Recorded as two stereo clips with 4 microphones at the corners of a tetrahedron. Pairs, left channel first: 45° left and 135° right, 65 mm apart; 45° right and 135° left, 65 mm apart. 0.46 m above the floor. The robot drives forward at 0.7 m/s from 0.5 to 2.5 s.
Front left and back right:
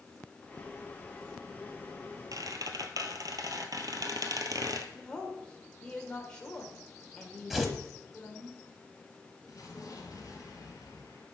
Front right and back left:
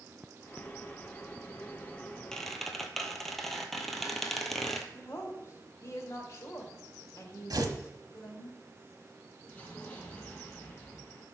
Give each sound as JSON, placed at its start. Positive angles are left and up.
{"t": 2.3, "sound": "a squeak", "azimuth_deg": -125, "distance_m": 1.0}
{"t": 4.9, "sound": "a woman speaking", "azimuth_deg": -25, "distance_m": 2.0}
{"t": 7.5, "sound": "tearing paper", "azimuth_deg": 140, "distance_m": 1.1}
{"t": 9.5, "sound": "an explosion", "azimuth_deg": 20, "distance_m": 3.0}